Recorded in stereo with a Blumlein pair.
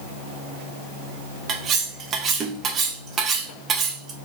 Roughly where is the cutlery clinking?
Ahead right.